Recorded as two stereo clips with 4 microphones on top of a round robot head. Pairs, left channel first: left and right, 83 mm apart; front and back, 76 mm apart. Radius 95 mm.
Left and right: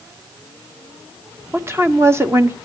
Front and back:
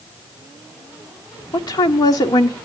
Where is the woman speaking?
30° right, 1.2 m.